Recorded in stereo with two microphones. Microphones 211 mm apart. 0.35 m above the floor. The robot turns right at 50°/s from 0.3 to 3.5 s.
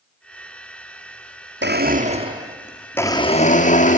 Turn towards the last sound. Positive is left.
turn(degrees=35)